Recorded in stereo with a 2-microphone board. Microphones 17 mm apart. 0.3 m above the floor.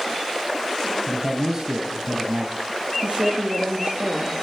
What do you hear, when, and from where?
1.1 s a man speaking: 35° right (ahead or behind), 2 m
3.0 s a woman speaking: 75° right (ahead or behind), 6.5 m